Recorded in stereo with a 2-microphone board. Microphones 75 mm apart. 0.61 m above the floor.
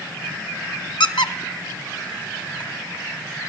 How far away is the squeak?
About 0.7 m.